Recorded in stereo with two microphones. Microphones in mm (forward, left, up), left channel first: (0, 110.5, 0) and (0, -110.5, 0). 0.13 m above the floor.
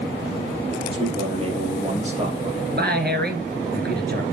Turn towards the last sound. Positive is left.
turn(degrees=-50)  # may be behind; listen again after turning